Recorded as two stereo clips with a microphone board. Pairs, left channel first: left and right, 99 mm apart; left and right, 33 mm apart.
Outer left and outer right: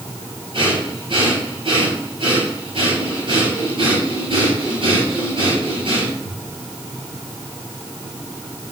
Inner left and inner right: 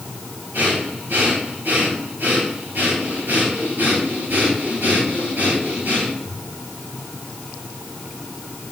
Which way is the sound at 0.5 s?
65° right (ahead or behind).